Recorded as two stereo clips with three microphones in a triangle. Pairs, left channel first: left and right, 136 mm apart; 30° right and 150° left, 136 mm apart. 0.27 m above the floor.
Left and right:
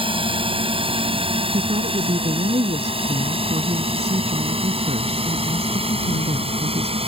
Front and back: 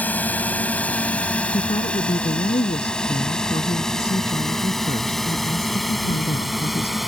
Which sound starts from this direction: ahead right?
A woman speaking, at 1.5 s.